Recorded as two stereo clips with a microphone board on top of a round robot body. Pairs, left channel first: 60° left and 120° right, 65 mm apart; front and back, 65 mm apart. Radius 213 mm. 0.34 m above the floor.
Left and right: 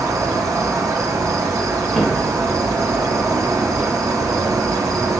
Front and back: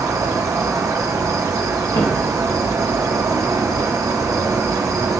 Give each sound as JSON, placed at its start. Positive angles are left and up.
{"t": 0.0, "sound": "an insect", "azimuth_deg": -150, "distance_m": 1.3}
{"t": 1.9, "sound": "footsteps", "azimuth_deg": -25, "distance_m": 2.0}